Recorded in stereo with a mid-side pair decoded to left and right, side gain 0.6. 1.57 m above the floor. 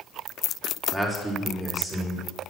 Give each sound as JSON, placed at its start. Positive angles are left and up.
{"t": 0.9, "sound": "a man speaking", "azimuth_deg": 10, "distance_m": 4.0}